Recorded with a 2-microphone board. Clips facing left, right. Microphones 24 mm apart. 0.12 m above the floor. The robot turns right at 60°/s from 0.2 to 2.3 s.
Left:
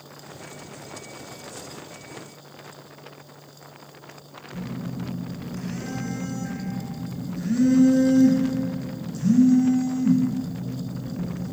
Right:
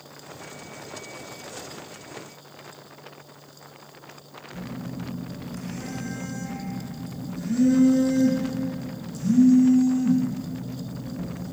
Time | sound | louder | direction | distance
4.5 | a phone buzzing | left 2 dB | 20° left (ahead or behind) | 0.9 m